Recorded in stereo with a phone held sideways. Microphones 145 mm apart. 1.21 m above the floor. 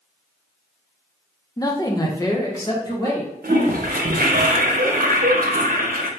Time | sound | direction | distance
1.6 | a man speaking | 25° left (ahead or behind) | 0.7 m
3.4 | a toilet flushing | 90° right | 1.0 m